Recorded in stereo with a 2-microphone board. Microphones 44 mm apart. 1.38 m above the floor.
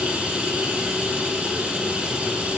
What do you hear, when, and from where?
0.0 s running water: 35° right (ahead or behind), 2.5 m